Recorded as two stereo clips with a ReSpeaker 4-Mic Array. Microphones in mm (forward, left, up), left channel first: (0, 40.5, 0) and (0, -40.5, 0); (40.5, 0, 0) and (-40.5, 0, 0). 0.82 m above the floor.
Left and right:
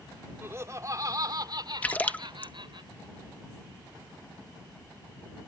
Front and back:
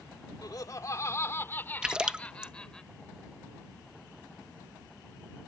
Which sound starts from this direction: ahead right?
Laughter, at 0.4 s.